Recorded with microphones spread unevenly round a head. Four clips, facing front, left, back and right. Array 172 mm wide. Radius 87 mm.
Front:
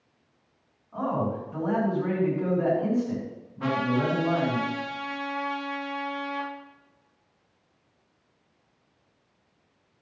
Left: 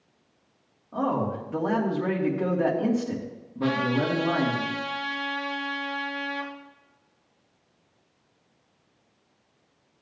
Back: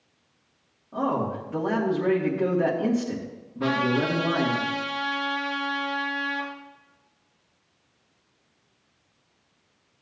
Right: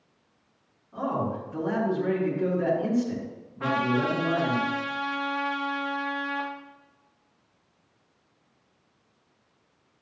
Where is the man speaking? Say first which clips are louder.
Left 2 dB, back 2 dB; 120° left, 3 m.